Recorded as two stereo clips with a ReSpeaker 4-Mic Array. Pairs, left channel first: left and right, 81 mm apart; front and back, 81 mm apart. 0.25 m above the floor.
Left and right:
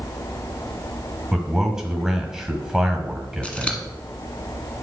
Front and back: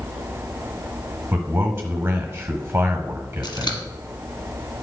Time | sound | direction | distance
1.3 | a man speaking | 170° right | 1.6 m
3.4 | scissors | 15° left | 1.2 m